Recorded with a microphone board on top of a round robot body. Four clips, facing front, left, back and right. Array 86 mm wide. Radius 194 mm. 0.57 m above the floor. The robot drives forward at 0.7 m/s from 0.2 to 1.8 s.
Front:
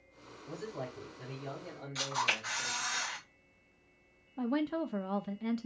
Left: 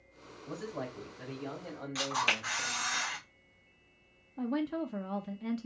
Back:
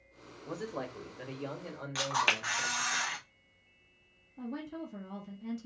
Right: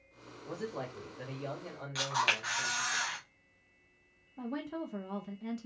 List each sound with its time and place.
0.5 s a man speaking: 155° right, 2 m; by 3.0 s 165° right, 3 m
1.9 s a camera shutter: 175° right, 2.5 m
4.4 s a woman speaking: 10° left, 0.8 m